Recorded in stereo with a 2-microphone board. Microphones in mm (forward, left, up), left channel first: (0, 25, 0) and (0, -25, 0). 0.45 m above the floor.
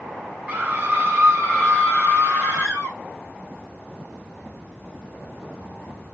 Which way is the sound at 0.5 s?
30° right (ahead or behind).